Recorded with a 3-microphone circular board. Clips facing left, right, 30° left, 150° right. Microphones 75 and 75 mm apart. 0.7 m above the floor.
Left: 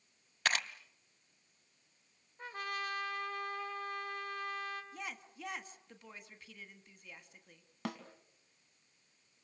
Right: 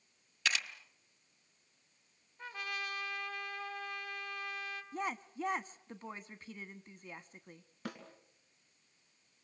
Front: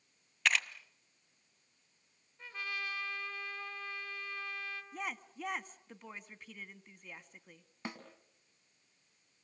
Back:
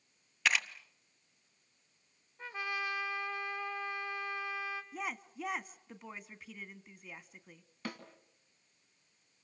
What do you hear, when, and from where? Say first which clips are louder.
0.5 s a camera shutter: left 2 dB, even; 125° left, 1.0 m
2.4 s a trumpet: left 2 dB, back 4 dB; 145° left, 2.5 m
4.9 s a woman speaking: right 8 dB, back 1 dB; 60° right, 1.0 m
7.8 s a snare drum: left 3 dB, back 1 dB; 100° left, 3 m